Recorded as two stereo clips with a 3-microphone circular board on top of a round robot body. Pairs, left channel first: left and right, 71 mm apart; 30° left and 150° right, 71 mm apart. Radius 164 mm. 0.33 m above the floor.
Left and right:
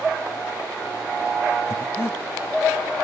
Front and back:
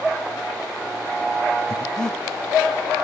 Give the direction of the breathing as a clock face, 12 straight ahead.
9 o'clock.